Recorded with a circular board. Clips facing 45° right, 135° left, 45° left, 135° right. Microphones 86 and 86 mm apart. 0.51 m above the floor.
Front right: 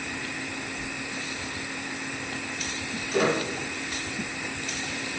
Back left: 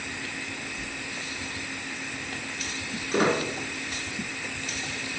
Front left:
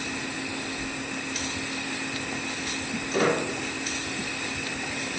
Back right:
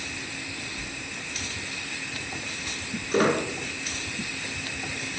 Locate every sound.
0.8 s a sliding door: 155° right, 1.2 m
3.1 s a squeak: straight behind, 1.3 m